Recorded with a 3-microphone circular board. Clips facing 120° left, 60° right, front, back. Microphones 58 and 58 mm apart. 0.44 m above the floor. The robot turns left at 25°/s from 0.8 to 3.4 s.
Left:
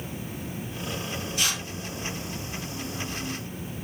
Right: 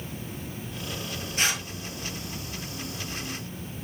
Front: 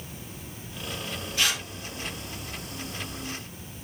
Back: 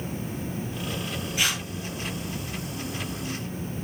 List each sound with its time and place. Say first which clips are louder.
1.4 s tearing paper: right 3 dB, even; 105° right, 6 m; by 1.6 s 115° right, 6 m